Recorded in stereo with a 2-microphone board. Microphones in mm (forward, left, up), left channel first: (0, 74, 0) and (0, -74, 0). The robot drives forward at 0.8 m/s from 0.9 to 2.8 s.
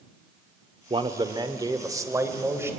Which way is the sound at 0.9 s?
35° right (ahead or behind).